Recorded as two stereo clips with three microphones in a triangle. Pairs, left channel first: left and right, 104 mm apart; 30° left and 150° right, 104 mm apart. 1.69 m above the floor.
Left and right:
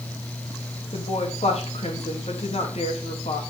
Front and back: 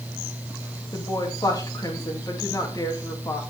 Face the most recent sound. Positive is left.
turn(degrees=85)